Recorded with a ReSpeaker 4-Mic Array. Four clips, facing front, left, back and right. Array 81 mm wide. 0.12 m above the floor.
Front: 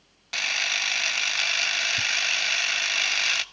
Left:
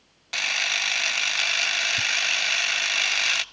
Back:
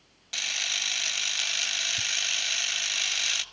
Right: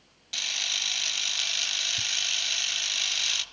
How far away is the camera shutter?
About 0.5 m.